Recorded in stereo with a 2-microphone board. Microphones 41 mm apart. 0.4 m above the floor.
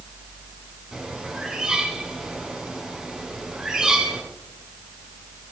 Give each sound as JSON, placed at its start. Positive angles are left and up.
{"t": 0.9, "sound": "a bird", "side_deg": -10, "distance_m": 3.5}